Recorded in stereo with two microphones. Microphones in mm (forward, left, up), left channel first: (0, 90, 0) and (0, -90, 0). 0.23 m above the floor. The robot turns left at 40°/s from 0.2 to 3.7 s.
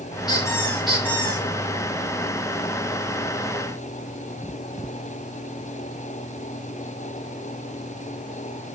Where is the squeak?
25° left, 4.5 m; by 1.5 s 25° right, 4.5 m.